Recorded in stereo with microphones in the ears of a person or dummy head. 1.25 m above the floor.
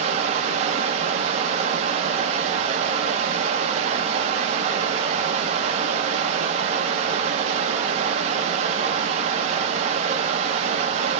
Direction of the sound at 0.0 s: 40° right (ahead or behind).